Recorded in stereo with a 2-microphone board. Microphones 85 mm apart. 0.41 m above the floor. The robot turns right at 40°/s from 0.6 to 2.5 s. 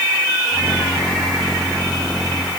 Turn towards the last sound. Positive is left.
No sound to turn to.